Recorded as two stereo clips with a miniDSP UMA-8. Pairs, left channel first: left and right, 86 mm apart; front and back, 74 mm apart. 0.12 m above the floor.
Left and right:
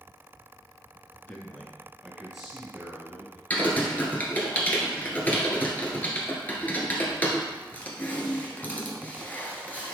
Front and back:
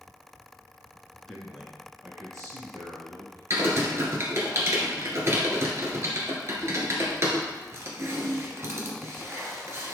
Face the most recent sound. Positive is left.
turn(degrees=150)